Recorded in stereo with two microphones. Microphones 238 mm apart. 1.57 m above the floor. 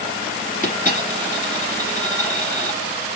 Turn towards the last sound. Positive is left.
turn(degrees=35)  # may be behind; listen again after turning